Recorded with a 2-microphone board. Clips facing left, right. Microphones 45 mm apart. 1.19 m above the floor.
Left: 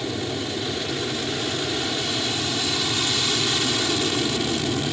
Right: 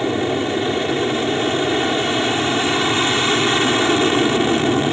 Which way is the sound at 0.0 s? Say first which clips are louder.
Right 8 dB; 35° right (ahead or behind).